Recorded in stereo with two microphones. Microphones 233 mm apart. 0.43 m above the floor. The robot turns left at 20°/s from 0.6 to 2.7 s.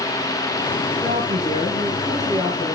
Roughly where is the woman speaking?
Behind right.